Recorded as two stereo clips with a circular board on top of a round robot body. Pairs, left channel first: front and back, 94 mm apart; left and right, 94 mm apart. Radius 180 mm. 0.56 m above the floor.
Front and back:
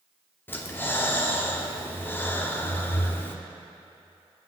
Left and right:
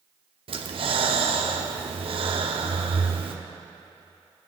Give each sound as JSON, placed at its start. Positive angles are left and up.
{"t": 0.5, "sound": "breathing", "azimuth_deg": -70, "distance_m": 0.7}